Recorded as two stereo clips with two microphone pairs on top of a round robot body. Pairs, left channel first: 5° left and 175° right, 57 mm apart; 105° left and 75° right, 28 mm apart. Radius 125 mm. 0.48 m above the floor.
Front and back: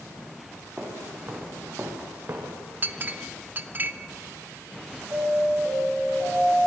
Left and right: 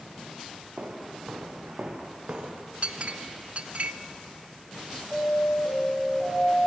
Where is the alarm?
150° left, 9.5 m.